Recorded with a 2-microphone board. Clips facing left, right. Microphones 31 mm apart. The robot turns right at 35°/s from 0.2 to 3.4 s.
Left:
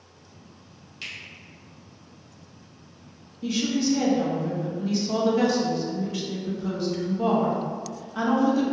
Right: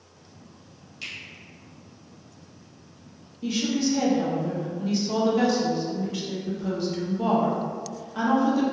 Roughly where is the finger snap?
Centre.